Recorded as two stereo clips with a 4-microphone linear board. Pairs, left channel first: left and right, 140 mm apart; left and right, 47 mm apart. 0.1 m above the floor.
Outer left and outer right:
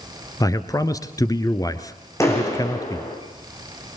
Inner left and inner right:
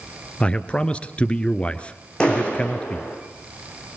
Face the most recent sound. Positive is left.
turn(degrees=20)  # may be behind; listen again after turning